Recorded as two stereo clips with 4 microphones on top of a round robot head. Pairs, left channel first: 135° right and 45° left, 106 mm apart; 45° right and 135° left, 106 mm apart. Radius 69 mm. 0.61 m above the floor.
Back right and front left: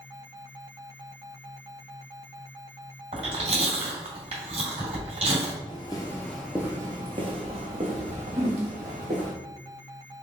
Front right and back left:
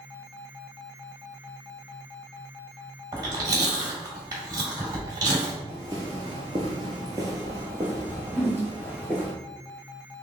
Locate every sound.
3.1 s chewing: 75° left, 1.9 m
5.7 s footsteps: 165° right, 0.8 m; by 9.3 s 60° left, 1.9 m
8.3 s a whoosh: 50° left, 1.7 m